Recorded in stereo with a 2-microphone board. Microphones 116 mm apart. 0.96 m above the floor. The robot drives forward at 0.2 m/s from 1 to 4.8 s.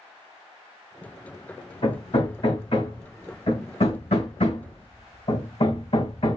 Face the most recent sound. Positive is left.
turn(degrees=65)  # may be behind; listen again after turning